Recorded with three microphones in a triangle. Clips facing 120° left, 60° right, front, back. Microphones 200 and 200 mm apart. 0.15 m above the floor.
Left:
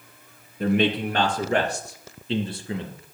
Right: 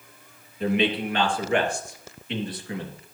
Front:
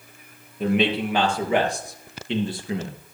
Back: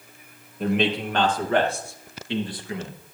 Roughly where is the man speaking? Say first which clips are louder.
Left 2 dB, front 2 dB; left.